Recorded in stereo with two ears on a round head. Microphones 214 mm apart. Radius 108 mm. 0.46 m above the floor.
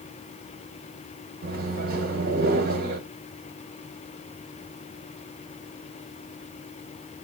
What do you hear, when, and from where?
1.4 s a microwave: 40° right (ahead or behind), 1.7 m